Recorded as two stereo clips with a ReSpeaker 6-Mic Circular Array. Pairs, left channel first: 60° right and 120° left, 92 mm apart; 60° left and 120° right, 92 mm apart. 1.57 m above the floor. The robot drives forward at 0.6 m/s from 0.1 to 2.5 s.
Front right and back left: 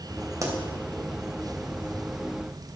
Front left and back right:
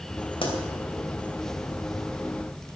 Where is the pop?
70° left, 3 m.